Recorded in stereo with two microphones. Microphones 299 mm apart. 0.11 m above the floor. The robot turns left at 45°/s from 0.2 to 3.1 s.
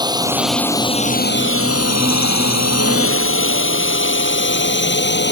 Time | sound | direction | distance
0.0 | a drone | 15° right (ahead or behind) | ?